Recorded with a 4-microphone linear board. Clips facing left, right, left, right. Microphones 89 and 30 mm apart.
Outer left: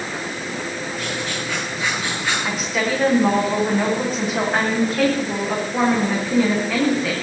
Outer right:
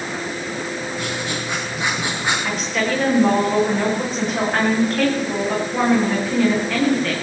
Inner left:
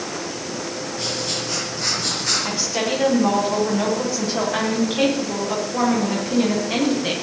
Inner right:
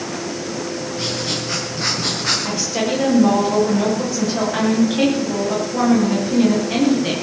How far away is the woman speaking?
About 8 m.